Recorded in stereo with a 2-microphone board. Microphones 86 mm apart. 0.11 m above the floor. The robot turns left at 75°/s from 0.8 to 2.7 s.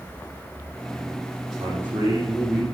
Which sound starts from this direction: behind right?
A man speaking, at 1.6 s.